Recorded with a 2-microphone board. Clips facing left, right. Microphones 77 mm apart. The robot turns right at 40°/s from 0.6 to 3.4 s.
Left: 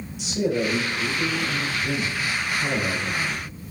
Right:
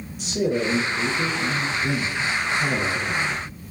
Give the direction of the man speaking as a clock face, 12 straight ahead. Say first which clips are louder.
Right 1 dB; 4 o'clock.